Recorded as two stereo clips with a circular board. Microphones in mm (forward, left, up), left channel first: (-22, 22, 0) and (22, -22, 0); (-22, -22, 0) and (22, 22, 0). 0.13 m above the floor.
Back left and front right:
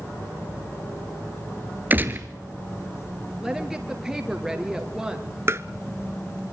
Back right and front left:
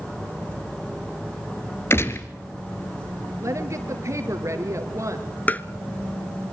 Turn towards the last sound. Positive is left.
turn(degrees=-80)